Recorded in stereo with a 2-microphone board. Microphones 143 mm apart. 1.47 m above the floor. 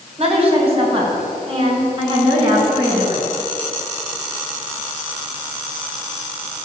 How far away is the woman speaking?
About 5 m.